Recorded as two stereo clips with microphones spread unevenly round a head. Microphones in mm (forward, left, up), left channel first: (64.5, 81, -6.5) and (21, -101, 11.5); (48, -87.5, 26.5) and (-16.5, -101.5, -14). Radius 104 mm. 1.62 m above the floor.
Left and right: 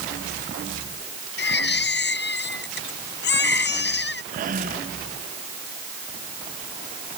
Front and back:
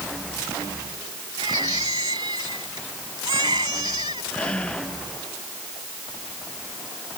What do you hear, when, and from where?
1.4 s a baby crying: 120° left
4.3 s breathing: 60° right